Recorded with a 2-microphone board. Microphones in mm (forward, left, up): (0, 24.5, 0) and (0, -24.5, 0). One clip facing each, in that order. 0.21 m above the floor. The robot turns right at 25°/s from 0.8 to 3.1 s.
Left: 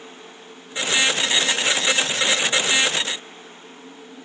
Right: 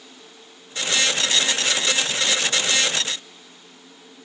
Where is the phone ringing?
I don't hear a phone ringing.